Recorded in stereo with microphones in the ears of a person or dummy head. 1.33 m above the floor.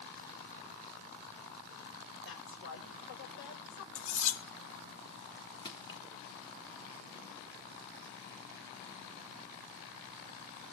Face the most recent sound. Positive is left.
turn(degrees=25)  # may be behind; listen again after turning